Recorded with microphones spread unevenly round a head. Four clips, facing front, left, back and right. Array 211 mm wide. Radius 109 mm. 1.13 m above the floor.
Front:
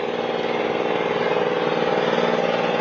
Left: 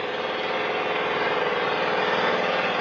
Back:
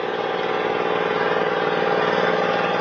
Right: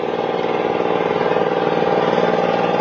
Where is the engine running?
90° right, 0.8 m.